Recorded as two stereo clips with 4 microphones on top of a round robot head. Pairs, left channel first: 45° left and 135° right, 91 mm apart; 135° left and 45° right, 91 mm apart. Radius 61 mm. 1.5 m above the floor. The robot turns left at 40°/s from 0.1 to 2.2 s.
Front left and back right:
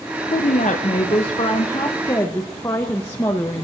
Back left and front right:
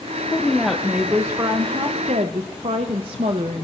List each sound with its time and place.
0.3 s a woman speaking: 60° left, 0.7 m; by 3.6 s 20° right, 0.7 m